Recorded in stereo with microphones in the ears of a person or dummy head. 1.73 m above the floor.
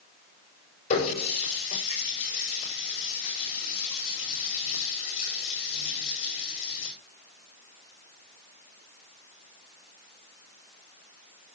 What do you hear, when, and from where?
0.9 s a running tap: 40° left (ahead or behind), 7.5 m